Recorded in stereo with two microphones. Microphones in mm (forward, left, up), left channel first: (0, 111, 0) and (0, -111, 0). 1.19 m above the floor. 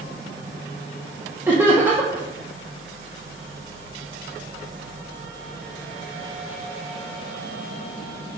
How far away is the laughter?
About 1.0 m.